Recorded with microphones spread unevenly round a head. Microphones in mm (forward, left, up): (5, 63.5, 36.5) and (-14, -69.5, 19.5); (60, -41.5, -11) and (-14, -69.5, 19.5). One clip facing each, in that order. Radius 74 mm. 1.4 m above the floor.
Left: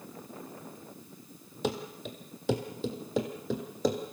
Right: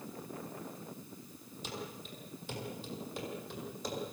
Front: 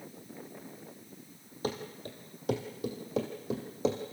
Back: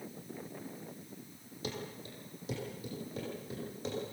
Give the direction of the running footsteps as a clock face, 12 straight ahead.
9 o'clock.